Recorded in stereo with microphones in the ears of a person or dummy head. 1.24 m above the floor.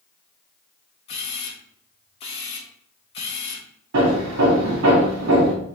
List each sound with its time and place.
1.1 s a camera shutter: 30° left (ahead or behind), 0.7 m
3.9 s hammering: 65° right (ahead or behind), 1.1 m